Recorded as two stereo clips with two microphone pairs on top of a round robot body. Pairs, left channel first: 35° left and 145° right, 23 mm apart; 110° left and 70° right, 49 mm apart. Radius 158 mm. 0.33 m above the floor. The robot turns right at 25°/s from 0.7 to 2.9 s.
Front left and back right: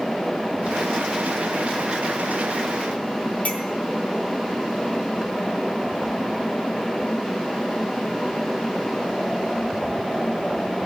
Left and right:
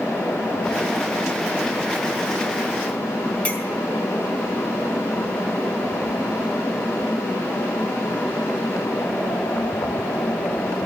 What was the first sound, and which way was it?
A clink, 55° left.